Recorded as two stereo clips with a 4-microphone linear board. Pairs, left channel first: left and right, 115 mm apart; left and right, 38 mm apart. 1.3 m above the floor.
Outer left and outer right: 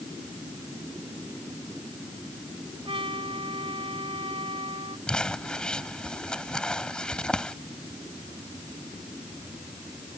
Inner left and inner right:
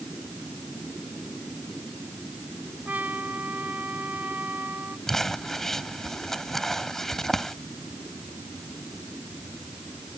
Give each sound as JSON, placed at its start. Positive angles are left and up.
{"t": 2.9, "sound": "a trumpet", "side_deg": -50}
{"t": 5.1, "sound": "crumpling", "side_deg": 5}